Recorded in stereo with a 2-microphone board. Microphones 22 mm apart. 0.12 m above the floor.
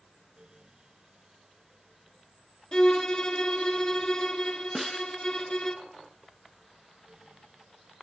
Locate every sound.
2.7 s a violin: 35° left (ahead or behind), 1.2 m
4.8 s a snare drum: 5° right (ahead or behind), 0.5 m